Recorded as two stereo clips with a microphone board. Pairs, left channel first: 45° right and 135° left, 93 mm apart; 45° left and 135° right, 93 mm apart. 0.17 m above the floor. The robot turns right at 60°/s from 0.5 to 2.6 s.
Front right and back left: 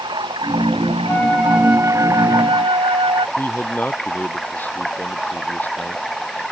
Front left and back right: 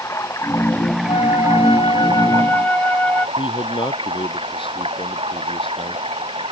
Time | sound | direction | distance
0.0 | running water | 100° left | ?
1.1 | a flute | 25° left | ?
3.4 | a man speaking | 25° left | ?